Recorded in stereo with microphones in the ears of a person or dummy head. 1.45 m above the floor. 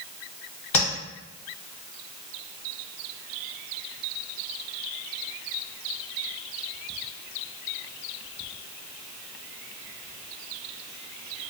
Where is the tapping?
20° left (ahead or behind), 1.4 m.